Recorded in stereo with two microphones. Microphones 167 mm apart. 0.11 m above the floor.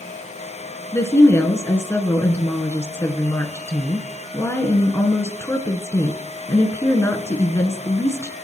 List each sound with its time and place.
0.9 s a woman speaking: 15° left (ahead or behind), 1.2 m